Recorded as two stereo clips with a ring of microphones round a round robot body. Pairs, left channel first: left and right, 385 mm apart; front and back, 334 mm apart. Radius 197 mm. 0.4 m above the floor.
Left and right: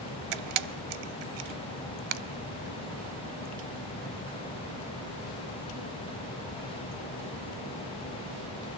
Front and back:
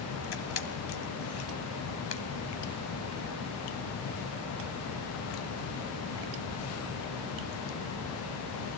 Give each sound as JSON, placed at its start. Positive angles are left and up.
{"t": 0.3, "sound": "a camera shutter", "azimuth_deg": -60, "distance_m": 0.7}